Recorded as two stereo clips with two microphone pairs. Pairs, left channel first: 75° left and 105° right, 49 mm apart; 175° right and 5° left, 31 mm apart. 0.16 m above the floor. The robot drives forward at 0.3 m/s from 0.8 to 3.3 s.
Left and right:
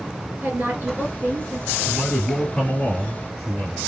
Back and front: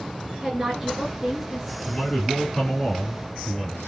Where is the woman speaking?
65° right, 2 m; by 1.8 s 75° right, 2 m.